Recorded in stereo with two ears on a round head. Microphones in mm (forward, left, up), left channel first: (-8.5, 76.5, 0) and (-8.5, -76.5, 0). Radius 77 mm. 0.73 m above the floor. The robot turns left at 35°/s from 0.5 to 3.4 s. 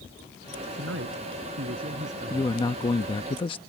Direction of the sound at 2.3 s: 135° left.